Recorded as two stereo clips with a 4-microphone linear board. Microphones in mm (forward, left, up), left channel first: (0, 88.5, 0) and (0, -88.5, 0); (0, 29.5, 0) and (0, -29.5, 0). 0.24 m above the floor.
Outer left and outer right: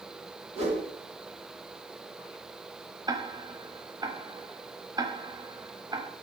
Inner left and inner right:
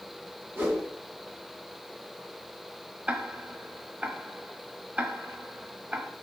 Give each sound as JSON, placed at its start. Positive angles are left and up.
{"t": 0.6, "sound": "a whoosh", "side_deg": -35, "distance_m": 2.0}
{"t": 3.1, "sound": "ticking", "side_deg": -20, "distance_m": 0.8}